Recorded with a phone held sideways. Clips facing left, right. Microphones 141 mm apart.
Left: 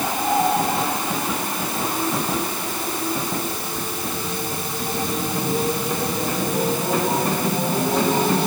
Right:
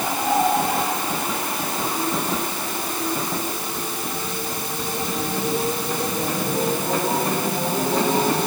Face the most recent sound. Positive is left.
No sound to turn to.